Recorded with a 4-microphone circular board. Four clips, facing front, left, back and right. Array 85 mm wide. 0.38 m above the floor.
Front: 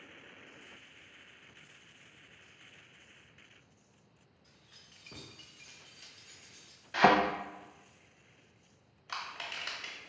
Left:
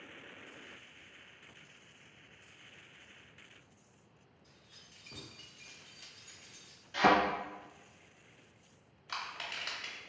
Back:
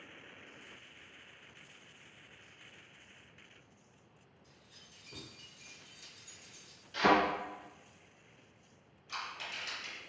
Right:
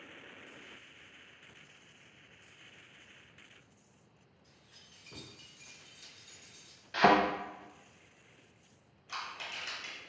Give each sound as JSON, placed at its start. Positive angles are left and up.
{"t": 4.4, "sound": "keys jangling", "azimuth_deg": -5, "distance_m": 1.1}
{"t": 6.9, "sound": "a thud", "azimuth_deg": -30, "distance_m": 0.7}
{"t": 9.1, "sound": "crushing", "azimuth_deg": 25, "distance_m": 1.1}